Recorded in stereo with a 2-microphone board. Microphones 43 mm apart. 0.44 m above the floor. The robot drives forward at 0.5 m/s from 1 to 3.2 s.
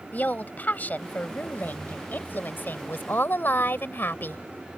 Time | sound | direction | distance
0.1 | a woman speaking | 40° left (ahead or behind) | ?